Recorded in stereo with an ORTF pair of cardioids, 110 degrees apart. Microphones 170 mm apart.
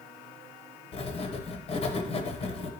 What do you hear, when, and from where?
0.9 s writing: 35° left, 0.8 m